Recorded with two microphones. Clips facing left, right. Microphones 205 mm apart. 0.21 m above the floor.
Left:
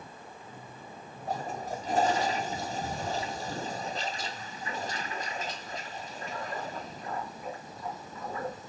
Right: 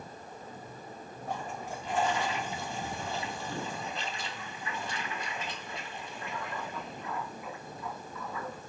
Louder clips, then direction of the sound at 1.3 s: Left 4 dB; 35° left (ahead or behind).